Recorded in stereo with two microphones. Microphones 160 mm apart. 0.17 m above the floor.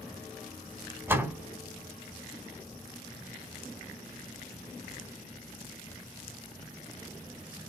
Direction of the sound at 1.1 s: 15° right (ahead or behind).